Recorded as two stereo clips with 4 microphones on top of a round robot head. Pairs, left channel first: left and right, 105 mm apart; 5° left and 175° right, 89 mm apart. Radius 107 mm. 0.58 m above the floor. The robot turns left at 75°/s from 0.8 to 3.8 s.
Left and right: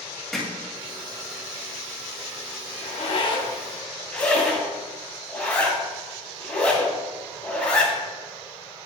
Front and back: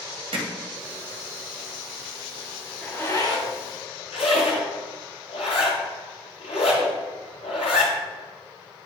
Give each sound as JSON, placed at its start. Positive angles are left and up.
{"t": 0.3, "sound": "hammering", "azimuth_deg": 175, "distance_m": 1.6}
{"t": 2.8, "sound": "a zipper", "azimuth_deg": 85, "distance_m": 1.8}